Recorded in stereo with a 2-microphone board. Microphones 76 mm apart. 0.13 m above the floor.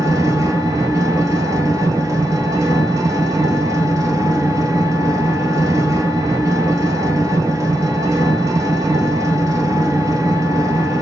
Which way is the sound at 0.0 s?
45° right (ahead or behind).